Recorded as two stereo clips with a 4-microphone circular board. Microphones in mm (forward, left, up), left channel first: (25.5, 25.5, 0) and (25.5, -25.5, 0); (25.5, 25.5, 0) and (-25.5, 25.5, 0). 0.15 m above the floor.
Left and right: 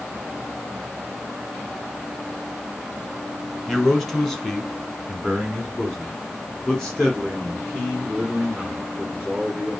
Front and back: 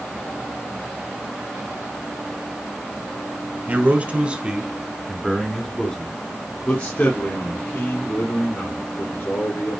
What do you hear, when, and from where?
3.7 s a man speaking: 175° left, 1.8 m; by 9.8 s 15° left, 3.5 m